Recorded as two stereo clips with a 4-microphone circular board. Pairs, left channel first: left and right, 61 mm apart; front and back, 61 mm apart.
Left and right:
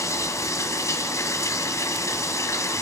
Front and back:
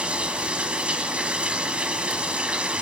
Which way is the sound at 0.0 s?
110° left.